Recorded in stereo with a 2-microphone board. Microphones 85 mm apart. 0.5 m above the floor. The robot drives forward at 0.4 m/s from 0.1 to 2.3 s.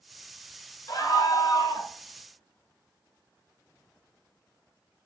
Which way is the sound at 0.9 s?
50° left (ahead or behind).